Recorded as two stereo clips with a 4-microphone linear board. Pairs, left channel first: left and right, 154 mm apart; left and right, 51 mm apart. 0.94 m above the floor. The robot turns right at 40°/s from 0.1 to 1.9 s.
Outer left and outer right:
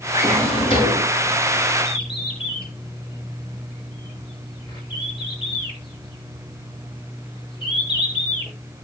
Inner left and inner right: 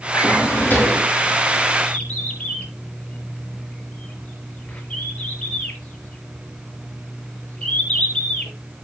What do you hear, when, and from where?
0.1 s a drawer: 125° left, 5.5 m; by 1.1 s 160° left, 5.5 m
1.9 s a bird: 30° left (ahead or behind), 4.5 m